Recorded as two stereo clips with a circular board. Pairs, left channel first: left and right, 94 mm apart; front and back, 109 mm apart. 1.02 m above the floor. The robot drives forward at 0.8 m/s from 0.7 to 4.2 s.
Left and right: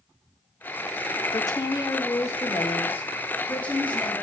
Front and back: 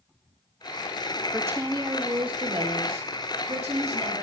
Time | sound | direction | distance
1.3 | a woman speaking | 115° left | 0.9 m